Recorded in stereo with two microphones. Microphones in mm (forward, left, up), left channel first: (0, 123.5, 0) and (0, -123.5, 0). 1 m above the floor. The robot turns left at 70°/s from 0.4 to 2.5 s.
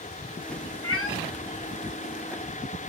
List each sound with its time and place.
0.8 s a cat meowing: 65° left (ahead or behind), 0.6 m; by 1.2 s 55° left (ahead or behind), 0.6 m